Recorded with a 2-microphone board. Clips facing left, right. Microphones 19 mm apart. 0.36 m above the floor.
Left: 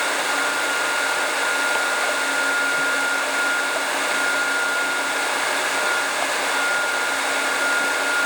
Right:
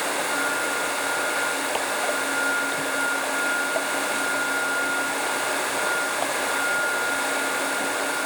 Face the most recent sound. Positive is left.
No sound to turn to.